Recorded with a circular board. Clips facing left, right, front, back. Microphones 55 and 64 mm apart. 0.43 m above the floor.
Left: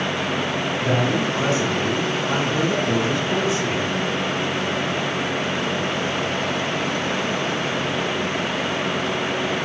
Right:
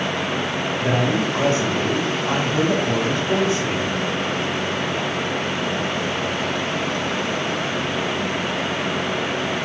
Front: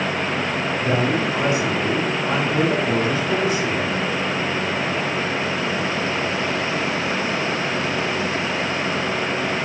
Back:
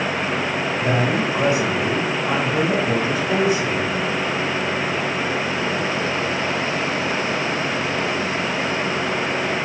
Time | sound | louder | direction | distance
0.8 | a man speaking | right 1 dB, even | 125° right | 2.5 m